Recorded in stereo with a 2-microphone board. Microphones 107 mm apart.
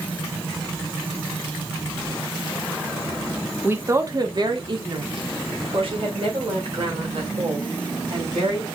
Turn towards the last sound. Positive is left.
turn(degrees=-65)  # may be behind; listen again after turning